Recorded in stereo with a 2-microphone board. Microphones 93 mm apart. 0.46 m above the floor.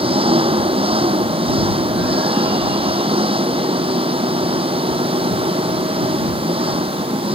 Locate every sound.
0.0 s an engine running: 85° right